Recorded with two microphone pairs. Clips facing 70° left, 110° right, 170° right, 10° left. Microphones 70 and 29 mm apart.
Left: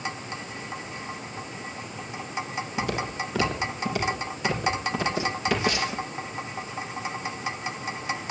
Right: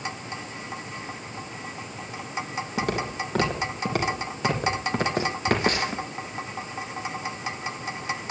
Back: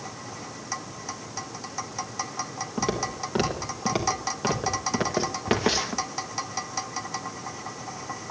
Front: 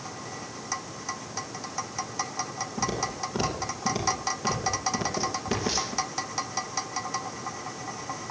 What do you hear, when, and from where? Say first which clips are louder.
2.8 s footsteps: right 2 dB, back 2 dB; 140° right, 5 m; by 6.0 s 160° right, 2.5 m